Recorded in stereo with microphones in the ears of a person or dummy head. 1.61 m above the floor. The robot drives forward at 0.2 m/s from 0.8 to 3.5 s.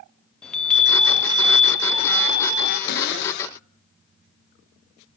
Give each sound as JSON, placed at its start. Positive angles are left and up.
{"t": 0.4, "sound": "a chime", "side_deg": 0, "distance_m": 0.6}
{"t": 2.9, "sound": "a cupboard door", "side_deg": 60, "distance_m": 0.8}